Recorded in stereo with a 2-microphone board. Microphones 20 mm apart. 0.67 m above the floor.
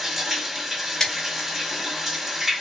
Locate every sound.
0.0 s running water: 10° right (ahead or behind), 1.7 m
1.0 s scissors: 25° left (ahead or behind), 2.5 m